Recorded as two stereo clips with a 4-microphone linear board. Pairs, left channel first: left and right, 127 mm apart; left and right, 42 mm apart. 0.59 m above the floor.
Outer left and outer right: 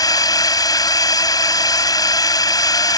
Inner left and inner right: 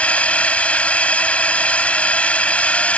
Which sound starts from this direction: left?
A drone, at 0.0 s.